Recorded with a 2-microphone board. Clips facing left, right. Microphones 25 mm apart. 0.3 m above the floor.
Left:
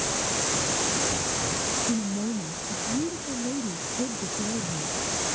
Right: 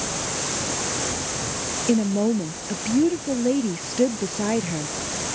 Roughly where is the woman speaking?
Right.